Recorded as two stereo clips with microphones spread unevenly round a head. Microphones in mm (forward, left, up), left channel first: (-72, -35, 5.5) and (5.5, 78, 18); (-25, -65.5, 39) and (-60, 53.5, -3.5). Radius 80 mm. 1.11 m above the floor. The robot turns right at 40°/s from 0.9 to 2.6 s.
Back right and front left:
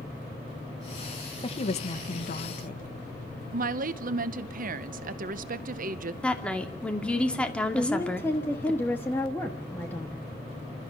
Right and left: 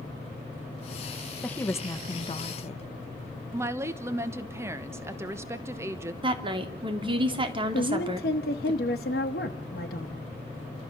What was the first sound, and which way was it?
A woman speaking, 165° right.